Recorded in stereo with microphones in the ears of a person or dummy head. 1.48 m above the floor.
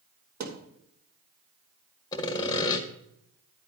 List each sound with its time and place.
0.4 s a thud: 50° right (ahead or behind), 2.5 m
2.1 s sawing: 25° left (ahead or behind), 1.5 m